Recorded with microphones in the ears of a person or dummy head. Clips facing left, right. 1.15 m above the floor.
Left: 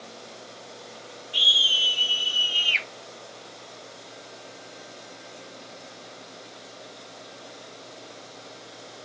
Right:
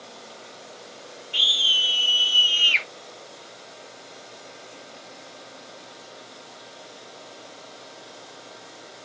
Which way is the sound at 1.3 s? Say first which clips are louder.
Even; 30° right (ahead or behind).